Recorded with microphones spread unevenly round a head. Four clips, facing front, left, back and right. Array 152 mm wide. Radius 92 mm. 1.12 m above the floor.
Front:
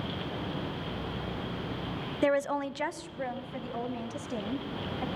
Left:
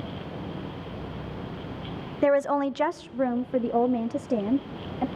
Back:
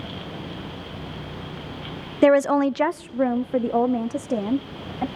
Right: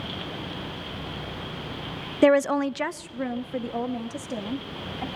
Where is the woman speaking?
125° right, 0.7 m; by 5.1 s 135° left, 2 m.